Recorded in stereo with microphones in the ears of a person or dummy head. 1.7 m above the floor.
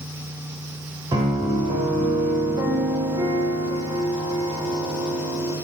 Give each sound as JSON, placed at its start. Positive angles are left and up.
{"t": 1.1, "sound": "a piano", "side_deg": -20, "distance_m": 0.9}